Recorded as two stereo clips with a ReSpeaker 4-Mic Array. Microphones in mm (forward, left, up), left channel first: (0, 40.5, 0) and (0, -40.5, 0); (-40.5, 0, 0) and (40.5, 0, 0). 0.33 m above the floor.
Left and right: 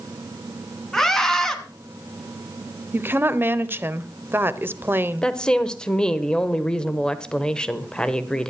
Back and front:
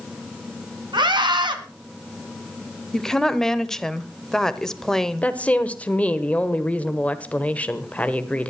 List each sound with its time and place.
0.9 s a scream: 5° left, 2.5 m
2.9 s a woman speaking: 105° right, 0.9 m
5.2 s a woman speaking: 150° left, 1.1 m